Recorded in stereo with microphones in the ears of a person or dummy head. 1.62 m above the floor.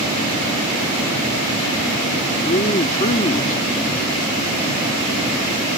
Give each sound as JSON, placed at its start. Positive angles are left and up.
{"t": 2.5, "sound": "a man speaking", "side_deg": 40}